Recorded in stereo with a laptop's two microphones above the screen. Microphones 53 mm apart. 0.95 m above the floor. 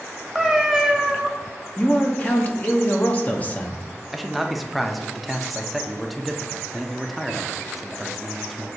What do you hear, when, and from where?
0.3 s a cat meowing: 5° right (ahead or behind), 0.6 m
1.8 s a man speaking: 30° left (ahead or behind), 0.7 m
4.1 s a man speaking: centre (ahead or behind), 0.5 m